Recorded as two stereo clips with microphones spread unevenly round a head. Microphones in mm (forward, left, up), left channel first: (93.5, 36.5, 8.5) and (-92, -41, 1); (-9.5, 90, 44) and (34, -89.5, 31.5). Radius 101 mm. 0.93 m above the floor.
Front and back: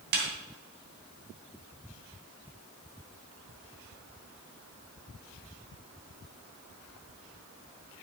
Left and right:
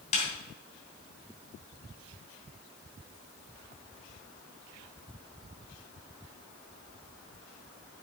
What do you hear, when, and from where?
0.1 s a snare drum: 160° left, 3 m